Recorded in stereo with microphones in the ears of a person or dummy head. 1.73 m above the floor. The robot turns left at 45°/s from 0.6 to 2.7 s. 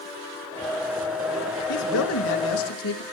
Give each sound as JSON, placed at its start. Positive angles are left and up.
{"t": 1.7, "sound": "a man speaking", "azimuth_deg": 130, "distance_m": 1.4}